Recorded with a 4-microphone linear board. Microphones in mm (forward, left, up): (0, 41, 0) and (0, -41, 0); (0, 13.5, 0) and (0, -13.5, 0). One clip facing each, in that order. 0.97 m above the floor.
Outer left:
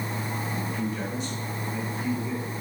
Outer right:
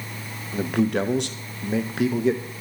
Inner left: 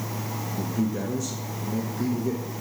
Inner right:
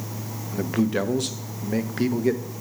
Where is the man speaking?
70° right (ahead or behind), 0.7 m.